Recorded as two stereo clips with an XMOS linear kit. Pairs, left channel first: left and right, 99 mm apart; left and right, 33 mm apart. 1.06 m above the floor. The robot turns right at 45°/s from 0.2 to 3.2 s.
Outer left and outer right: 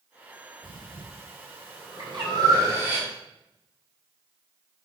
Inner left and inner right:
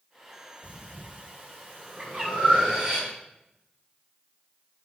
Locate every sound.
0.6 s breathing: 55° right (ahead or behind), 4 m; by 3.0 s 20° right (ahead or behind), 4 m
2.0 s a bird: 60° right (ahead or behind), 7 m; by 2.3 s 45° right (ahead or behind), 7 m